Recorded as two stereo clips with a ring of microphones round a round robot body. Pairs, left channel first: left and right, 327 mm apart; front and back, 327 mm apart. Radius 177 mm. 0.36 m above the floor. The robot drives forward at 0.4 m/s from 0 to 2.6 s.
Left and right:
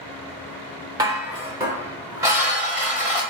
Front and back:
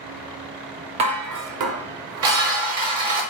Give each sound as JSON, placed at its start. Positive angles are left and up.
{"t": 1.0, "sound": "dishes clattering", "azimuth_deg": -150, "distance_m": 0.5}